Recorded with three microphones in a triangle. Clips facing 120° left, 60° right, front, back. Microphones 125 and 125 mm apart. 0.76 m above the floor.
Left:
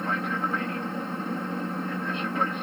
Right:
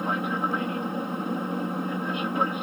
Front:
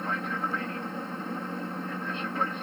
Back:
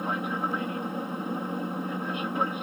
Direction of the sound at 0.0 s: 120° right.